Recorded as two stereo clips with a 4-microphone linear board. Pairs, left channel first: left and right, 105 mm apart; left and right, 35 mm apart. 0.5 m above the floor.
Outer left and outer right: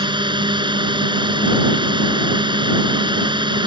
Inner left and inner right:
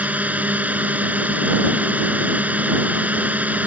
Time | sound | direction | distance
0.0 | a drone | 55° right (ahead or behind) | ?